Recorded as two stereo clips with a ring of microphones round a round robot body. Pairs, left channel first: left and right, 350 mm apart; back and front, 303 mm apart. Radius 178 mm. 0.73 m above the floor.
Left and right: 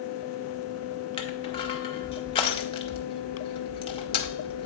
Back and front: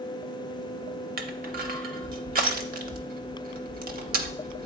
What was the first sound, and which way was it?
Crushing, 30° left.